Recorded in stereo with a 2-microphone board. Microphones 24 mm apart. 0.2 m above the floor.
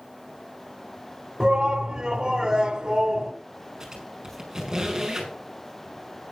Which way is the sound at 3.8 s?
30° right (ahead or behind).